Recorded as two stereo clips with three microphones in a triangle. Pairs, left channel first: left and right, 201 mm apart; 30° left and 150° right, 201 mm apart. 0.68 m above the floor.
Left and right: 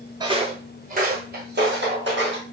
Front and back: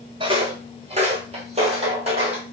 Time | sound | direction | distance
0.2 | footsteps | 130° right | 0.7 m